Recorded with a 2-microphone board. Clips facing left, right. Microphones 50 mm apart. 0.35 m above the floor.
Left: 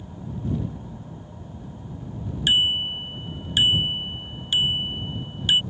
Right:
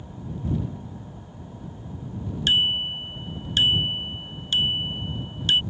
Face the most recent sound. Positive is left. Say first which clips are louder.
# left 1 dB
turn(degrees=10)  # may be behind; listen again after turning